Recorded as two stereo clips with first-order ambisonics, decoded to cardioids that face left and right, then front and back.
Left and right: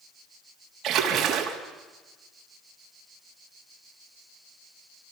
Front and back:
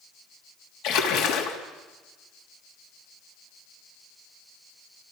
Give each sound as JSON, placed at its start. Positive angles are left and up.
{"t": 0.8, "sound": "a splash", "azimuth_deg": -30, "distance_m": 3.0}